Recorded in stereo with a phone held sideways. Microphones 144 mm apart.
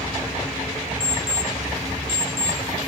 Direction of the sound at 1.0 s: 20° left (ahead or behind).